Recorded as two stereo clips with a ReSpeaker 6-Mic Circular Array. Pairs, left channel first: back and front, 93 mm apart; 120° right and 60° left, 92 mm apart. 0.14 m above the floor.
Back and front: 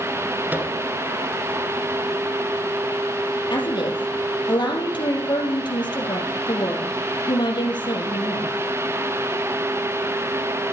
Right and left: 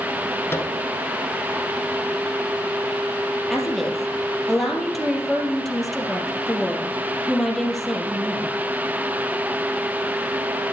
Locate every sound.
0.5 s a microwave: 65° right, 1.5 m
3.5 s a woman speaking: 150° left, 3.5 m